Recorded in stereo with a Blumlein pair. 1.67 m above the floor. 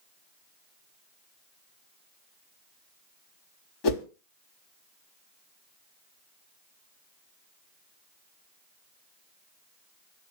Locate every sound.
3.8 s a whoosh: 40° left, 1.2 m